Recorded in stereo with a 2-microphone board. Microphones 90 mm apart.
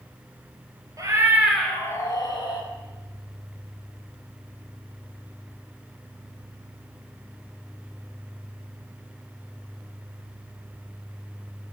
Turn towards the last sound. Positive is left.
turn(degrees=60)  # may be behind; listen again after turning